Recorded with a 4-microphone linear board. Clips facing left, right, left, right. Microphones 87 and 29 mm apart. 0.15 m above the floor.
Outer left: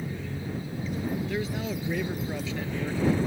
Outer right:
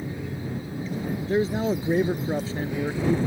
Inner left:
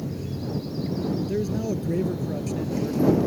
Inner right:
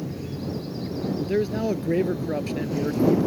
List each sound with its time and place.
0.0 s an aircraft: 10° right (ahead or behind)
1.2 s a man speaking: 35° right (ahead or behind)